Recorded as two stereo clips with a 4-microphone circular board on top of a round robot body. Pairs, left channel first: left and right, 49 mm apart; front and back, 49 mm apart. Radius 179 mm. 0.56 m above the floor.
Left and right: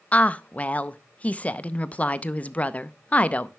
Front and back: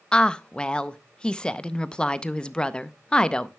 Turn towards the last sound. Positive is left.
turn(degrees=55)